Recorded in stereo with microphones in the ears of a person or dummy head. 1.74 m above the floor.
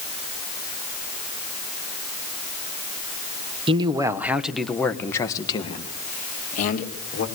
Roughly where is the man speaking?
Right.